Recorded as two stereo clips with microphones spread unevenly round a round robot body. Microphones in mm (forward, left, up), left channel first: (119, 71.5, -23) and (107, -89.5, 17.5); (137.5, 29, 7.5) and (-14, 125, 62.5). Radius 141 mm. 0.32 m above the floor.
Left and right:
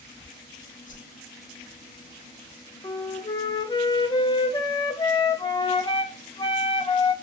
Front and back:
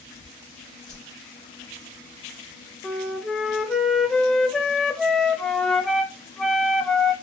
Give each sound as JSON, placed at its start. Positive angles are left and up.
{"t": 0.9, "sound": "a whoosh", "azimuth_deg": 50, "distance_m": 1.4}
{"t": 2.8, "sound": "a flute", "azimuth_deg": 40, "distance_m": 0.5}